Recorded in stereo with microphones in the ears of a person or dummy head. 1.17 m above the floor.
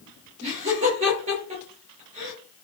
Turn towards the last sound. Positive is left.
turn(degrees=-35)  # may be behind; listen again after turning